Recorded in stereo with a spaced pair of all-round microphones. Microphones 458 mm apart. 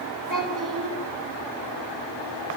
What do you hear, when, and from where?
0.3 s a child speaking: 40° right (ahead or behind), 7.5 m